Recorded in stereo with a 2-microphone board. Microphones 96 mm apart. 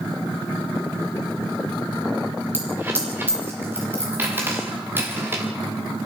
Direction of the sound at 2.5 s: 20° right (ahead or behind).